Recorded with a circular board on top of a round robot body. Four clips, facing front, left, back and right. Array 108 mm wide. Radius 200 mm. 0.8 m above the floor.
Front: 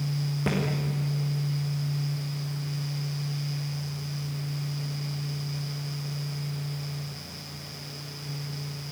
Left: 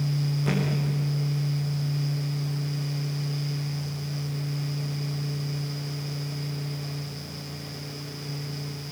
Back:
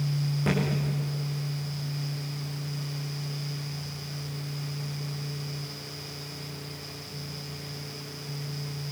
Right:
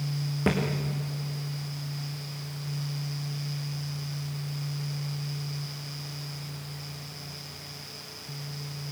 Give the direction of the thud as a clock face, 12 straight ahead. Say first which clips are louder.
Right 2 dB, back 1 dB; 3 o'clock.